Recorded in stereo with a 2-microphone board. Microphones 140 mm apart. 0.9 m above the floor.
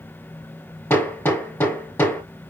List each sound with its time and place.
0.9 s hammering: 15° left (ahead or behind), 5.5 m